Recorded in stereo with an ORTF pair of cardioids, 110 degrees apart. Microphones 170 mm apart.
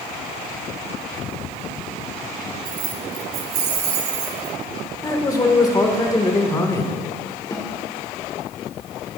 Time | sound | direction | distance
2.6 | keys jangling | 55° right | 1.8 m
5.0 | a man speaking | 20° left | 1.8 m
7.5 | a snare drum | 25° left | 1.5 m